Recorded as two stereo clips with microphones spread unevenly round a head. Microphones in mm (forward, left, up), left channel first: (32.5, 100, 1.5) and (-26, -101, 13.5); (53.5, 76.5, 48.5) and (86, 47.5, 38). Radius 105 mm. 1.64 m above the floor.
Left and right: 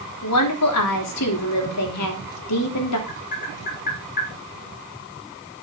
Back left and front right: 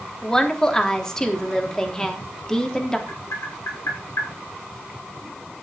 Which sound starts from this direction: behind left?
Tapping, at 3.1 s.